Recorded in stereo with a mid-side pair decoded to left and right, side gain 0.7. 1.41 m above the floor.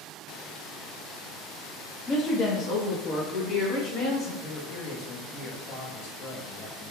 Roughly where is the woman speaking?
Ahead left.